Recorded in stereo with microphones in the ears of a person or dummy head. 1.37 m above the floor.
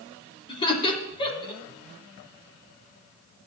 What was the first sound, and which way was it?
Laughter, 30° left (ahead or behind).